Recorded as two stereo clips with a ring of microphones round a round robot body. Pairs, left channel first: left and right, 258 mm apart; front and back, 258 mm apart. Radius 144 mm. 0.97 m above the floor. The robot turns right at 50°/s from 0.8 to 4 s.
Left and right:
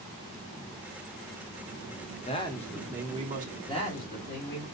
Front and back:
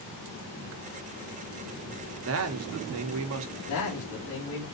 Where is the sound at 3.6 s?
10° left, 1.5 m; by 4.7 s 35° left, 1.5 m.